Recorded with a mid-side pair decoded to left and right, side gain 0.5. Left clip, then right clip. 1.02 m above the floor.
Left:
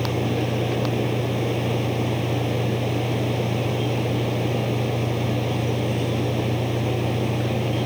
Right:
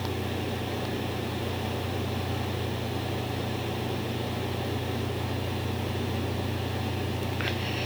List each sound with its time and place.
0.0 s a machine running: 65° left